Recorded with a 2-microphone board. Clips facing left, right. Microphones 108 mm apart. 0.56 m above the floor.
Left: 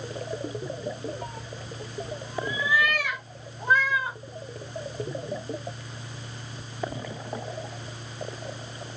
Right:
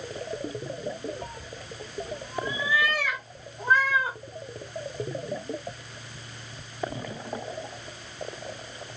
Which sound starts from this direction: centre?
A cat meowing, at 1.2 s.